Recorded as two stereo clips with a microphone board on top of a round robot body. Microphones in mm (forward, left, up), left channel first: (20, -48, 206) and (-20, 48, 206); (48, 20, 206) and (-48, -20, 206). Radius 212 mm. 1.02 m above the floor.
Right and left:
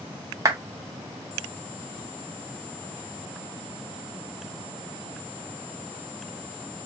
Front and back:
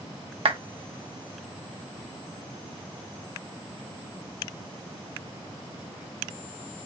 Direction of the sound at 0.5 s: 175° left.